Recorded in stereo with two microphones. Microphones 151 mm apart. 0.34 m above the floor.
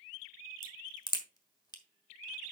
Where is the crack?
30° left (ahead or behind), 1.4 m.